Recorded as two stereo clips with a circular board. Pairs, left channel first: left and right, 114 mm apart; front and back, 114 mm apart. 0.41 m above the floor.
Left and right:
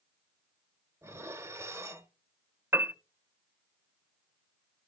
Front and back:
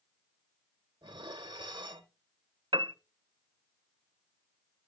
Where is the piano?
155° right, 0.6 m.